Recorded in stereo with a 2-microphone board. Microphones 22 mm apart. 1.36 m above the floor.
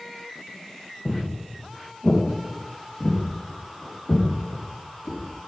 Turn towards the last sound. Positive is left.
turn(degrees=75)  # may be behind; listen again after turning